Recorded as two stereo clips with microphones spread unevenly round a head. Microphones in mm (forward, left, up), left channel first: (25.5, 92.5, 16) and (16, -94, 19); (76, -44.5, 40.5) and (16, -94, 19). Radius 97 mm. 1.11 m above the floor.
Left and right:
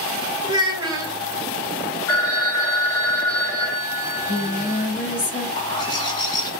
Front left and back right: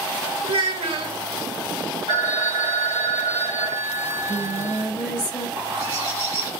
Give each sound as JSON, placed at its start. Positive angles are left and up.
{"t": 0.4, "sound": "a child speaking", "azimuth_deg": -160, "distance_m": 1.1}
{"t": 2.1, "sound": "a phone ringing", "azimuth_deg": 165, "distance_m": 1.3}
{"t": 4.0, "sound": "singing", "azimuth_deg": 40, "distance_m": 2.0}
{"t": 5.6, "sound": "a bird", "azimuth_deg": 155, "distance_m": 0.9}